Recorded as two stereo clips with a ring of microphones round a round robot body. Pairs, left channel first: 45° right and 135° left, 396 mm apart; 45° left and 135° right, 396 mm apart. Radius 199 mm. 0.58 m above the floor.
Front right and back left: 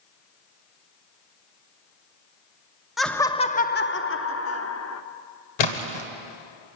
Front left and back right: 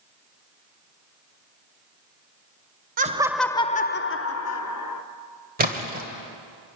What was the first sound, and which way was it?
Laughter, 135° right.